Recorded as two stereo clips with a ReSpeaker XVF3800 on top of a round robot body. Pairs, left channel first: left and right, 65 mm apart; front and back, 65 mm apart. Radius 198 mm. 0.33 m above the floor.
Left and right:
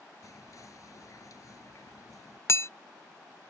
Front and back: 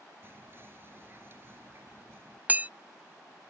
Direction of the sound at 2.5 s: 120° left.